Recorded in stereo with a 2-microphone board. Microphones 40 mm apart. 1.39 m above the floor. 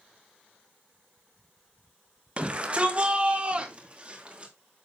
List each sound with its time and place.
2.4 s a shout: 30° right (ahead or behind), 1.5 m